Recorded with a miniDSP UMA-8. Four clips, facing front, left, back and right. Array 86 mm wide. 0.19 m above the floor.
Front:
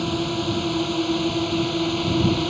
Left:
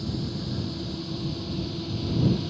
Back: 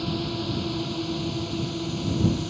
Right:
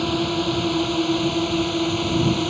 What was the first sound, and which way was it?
A drone, 65° right.